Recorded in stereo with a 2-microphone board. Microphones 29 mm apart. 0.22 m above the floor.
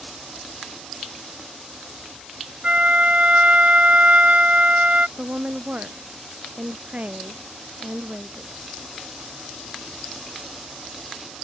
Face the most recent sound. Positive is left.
turn(degrees=-55)  # may be behind; listen again after turning